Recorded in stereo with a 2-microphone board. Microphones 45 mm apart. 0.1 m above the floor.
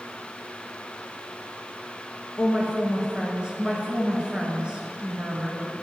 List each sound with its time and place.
2.4 s a woman speaking: 20° right (ahead or behind), 1.5 m